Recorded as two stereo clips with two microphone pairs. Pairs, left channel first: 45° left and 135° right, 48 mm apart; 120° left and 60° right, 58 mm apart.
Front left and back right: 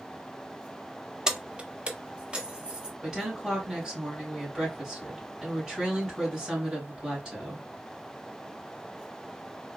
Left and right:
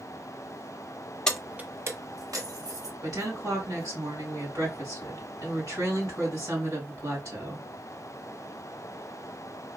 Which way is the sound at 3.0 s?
55° right.